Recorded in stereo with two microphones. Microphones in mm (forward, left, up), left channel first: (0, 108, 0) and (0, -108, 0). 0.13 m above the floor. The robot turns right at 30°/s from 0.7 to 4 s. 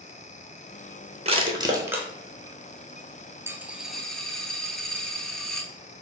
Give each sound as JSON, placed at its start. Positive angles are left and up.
{"t": 1.2, "sound": "crushing", "side_deg": -30, "distance_m": 0.8}
{"t": 3.5, "sound": "a dropped coin", "side_deg": -10, "distance_m": 0.5}